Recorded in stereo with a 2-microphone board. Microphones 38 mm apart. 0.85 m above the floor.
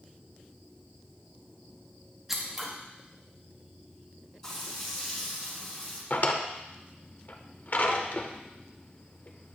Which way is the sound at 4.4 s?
10° left (ahead or behind).